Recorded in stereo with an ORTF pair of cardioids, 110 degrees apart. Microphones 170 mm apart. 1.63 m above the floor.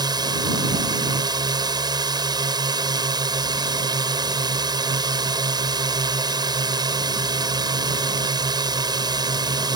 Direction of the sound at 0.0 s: 25° right.